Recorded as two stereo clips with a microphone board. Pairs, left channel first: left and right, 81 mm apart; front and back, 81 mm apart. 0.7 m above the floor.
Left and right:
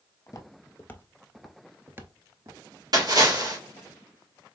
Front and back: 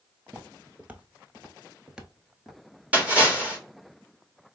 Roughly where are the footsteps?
Behind left.